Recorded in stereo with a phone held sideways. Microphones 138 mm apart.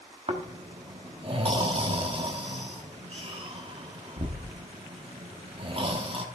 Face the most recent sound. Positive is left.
turn(degrees=-40)  # may be behind; listen again after turning